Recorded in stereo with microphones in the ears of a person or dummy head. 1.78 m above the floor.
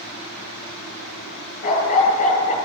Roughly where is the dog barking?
Left.